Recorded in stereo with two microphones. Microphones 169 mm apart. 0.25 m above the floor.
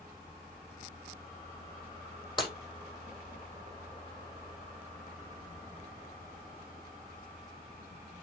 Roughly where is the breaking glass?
Left.